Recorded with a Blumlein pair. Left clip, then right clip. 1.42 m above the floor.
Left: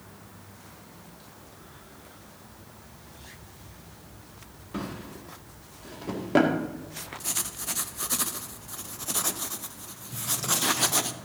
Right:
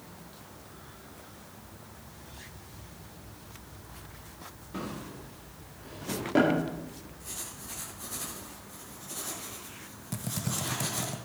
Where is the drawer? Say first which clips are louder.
Left 2 dB; 15° left, 1.9 m.